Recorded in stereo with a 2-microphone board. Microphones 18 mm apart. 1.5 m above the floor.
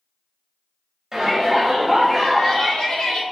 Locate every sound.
1.1 s a shout: 20° right (ahead or behind), 0.7 m; by 3.2 s 70° left (ahead or behind), 0.8 m